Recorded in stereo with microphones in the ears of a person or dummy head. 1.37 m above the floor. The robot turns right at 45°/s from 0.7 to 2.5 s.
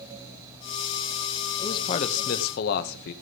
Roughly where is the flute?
I don't hear a flute.